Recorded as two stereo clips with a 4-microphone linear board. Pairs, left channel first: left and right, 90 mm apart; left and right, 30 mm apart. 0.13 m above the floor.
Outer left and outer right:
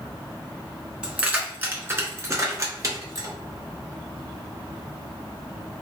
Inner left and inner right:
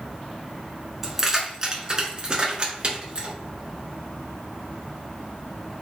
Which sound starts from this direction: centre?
Keys jangling, at 1.0 s.